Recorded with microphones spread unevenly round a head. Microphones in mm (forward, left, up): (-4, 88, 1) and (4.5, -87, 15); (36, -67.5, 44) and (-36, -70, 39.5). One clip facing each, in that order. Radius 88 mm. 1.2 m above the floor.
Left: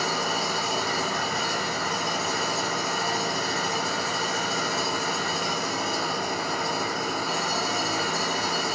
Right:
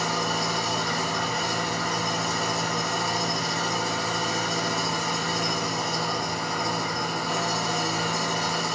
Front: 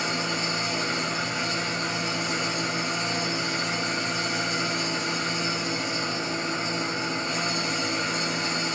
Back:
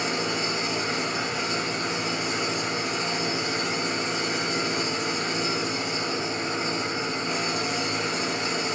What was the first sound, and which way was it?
An engine running, straight behind.